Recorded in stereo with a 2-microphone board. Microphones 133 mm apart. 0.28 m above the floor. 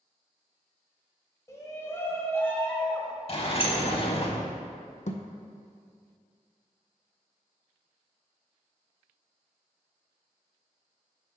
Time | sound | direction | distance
1.5 | a shout | 25° left (ahead or behind) | 1.1 m
3.3 | a sliding door | 45° left (ahead or behind) | 0.7 m
5.1 | a thud | 65° left (ahead or behind) | 0.7 m